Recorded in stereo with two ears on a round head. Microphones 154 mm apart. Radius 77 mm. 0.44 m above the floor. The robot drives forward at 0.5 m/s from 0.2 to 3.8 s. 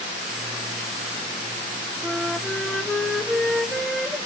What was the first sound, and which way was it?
A flute, 5° left (ahead or behind).